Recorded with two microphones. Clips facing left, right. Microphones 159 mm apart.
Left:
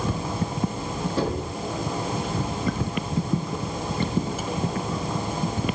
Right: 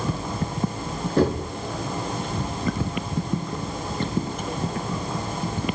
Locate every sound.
1.2 s knocking: 55° right (ahead or behind), 7 m